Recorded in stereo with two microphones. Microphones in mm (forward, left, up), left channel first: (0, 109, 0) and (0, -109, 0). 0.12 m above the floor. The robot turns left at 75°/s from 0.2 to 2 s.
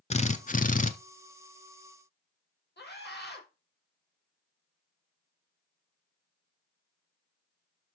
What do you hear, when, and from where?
0.1 s a drill: 120° left, 0.9 m; by 0.9 s 65° left, 0.9 m
2.8 s a scream: 50° left (ahead or behind), 4.5 m